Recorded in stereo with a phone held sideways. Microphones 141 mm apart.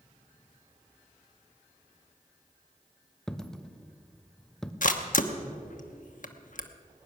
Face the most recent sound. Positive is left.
turn(degrees=65)  # may be behind; listen again after turning